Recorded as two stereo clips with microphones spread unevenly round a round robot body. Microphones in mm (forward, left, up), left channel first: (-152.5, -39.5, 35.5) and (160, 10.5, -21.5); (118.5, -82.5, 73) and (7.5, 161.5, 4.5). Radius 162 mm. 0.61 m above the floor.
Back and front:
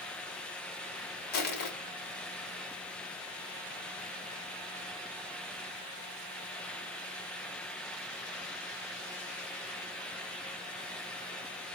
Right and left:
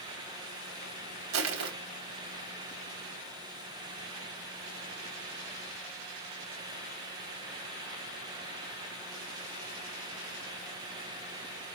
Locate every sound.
1.3 s crushing: 125° left, 1.8 m